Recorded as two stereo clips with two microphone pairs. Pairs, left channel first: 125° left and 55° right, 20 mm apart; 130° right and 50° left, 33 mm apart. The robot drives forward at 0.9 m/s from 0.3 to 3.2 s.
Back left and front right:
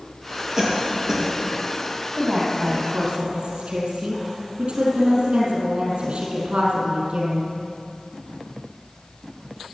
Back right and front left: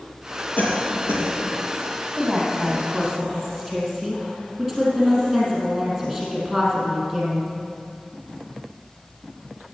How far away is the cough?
About 5.5 m.